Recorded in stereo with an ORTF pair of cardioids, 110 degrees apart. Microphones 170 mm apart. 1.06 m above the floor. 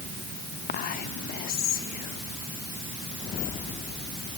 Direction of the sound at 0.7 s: 55° left.